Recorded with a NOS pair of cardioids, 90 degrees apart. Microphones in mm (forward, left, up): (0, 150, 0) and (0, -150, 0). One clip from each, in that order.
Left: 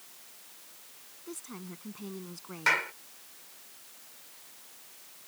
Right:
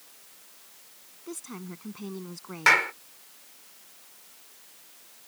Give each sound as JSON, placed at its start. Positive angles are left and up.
{"t": 1.3, "sound": "a woman speaking", "azimuth_deg": -30}
{"t": 2.7, "sound": "a clap", "azimuth_deg": -50}